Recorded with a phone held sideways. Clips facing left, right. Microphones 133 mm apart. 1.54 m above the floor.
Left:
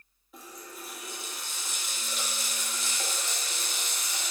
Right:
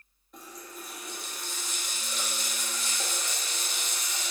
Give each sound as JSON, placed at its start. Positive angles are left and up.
{"t": 0.3, "sound": "a running tap", "side_deg": 5, "distance_m": 1.5}